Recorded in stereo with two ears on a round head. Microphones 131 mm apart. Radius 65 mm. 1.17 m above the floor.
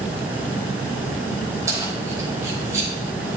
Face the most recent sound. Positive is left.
turn(degrees=-20)  # may be behind; listen again after turning